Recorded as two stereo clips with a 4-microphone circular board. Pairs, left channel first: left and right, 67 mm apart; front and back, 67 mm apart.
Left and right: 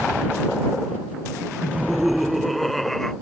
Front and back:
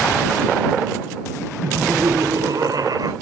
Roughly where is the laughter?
Behind.